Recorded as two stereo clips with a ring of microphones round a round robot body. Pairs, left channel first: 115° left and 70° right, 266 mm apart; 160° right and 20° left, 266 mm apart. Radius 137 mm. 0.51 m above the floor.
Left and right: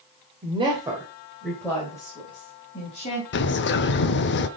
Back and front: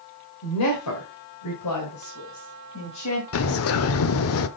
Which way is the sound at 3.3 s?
165° left.